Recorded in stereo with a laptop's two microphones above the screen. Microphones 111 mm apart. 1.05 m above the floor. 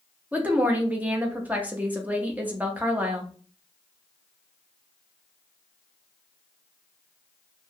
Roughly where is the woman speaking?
Centre.